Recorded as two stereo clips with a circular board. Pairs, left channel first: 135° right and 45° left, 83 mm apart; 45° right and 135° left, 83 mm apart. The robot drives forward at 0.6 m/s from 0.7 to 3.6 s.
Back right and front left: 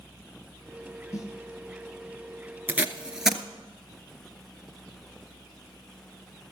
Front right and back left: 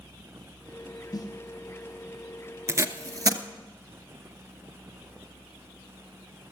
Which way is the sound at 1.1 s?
80° right.